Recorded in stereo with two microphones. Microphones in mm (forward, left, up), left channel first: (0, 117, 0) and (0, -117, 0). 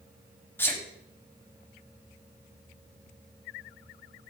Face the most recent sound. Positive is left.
turn(degrees=10)  # may be behind; listen again after turning